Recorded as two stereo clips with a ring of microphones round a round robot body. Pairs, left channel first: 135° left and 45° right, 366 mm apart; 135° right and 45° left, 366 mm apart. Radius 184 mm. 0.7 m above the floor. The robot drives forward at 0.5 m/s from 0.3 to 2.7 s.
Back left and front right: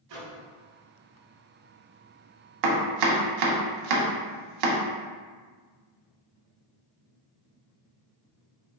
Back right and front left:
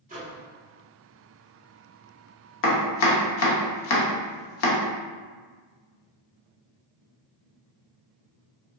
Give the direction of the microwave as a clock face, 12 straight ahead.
1 o'clock.